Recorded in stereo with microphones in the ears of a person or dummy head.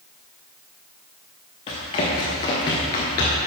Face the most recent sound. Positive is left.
turn(degrees=10)  # may be behind; listen again after turning